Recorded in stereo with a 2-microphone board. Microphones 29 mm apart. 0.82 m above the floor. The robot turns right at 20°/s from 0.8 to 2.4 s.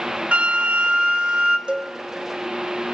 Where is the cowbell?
35° right (ahead or behind), 0.5 m; by 1.9 s 40° right (ahead or behind), 0.5 m.